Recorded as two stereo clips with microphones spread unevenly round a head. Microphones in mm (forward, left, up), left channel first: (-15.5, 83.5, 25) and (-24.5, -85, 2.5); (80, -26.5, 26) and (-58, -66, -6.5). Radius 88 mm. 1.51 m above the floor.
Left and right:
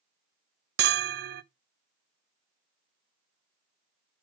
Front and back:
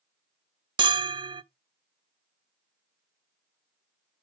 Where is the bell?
110° right, 0.6 m.